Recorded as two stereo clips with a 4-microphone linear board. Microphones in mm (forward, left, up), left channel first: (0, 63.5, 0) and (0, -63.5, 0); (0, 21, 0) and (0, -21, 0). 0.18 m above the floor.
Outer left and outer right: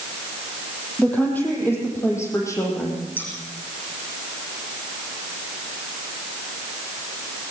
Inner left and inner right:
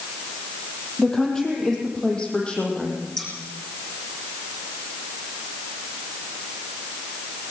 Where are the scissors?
15° left (ahead or behind), 9.5 m.